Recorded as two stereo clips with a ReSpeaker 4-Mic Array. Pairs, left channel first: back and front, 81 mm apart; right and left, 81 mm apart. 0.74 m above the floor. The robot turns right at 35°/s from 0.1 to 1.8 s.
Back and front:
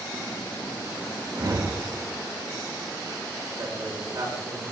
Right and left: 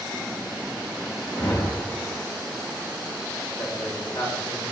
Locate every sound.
1.3 s a whoosh: 50° right, 2.5 m; by 1.9 s 30° right, 2.5 m
3.6 s a man speaking: 55° right, 8.5 m